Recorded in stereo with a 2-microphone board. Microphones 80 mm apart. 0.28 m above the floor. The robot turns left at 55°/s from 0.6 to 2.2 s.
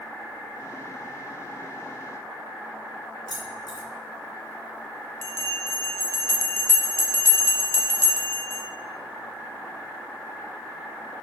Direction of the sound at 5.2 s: 30° left (ahead or behind).